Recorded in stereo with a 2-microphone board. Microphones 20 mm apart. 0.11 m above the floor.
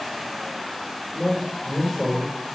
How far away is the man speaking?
About 2 m.